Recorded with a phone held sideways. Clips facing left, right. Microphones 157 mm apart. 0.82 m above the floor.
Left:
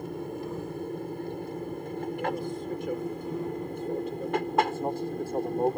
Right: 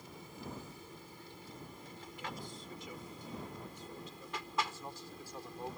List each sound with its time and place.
0.0 s an aircraft: 60° left (ahead or behind)